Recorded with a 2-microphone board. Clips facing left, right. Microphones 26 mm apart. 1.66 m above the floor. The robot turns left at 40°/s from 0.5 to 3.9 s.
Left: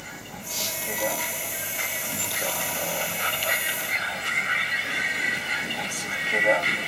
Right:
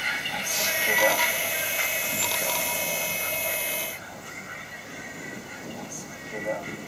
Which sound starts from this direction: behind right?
A vehicle, at 0.0 s.